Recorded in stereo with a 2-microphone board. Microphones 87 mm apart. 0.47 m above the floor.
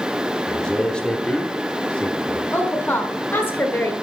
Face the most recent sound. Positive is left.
turn(degrees=25)  # may be behind; listen again after turning